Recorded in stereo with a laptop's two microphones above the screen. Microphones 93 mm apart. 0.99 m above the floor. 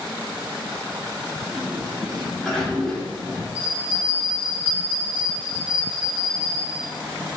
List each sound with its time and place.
1.5 s a sliding door: 10° left (ahead or behind), 2.5 m
3.5 s a bell: 20° right (ahead or behind), 4 m